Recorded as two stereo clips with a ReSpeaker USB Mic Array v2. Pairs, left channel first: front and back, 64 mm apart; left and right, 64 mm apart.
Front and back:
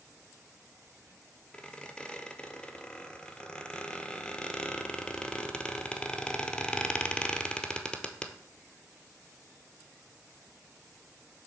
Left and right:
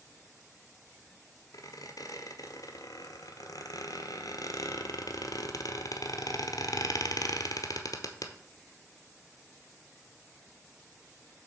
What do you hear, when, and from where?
1.5 s a squeak: 80° left, 0.9 m